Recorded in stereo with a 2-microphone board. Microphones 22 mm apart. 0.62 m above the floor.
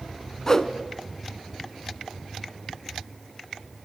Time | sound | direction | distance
0.5 | a whoosh | 30° left (ahead or behind) | 1.5 m